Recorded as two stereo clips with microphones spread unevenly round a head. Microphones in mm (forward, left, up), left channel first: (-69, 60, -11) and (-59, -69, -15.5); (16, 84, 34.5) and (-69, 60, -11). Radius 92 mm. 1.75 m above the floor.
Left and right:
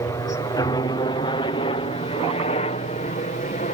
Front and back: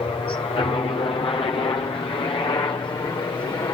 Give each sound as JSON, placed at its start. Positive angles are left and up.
{"t": 0.0, "sound": "a helicopter", "azimuth_deg": 40}